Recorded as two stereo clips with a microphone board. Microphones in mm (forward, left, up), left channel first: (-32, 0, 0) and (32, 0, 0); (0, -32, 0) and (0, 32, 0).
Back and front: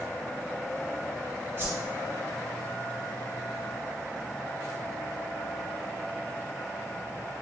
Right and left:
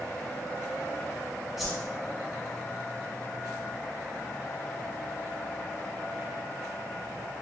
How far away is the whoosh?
About 1.2 m.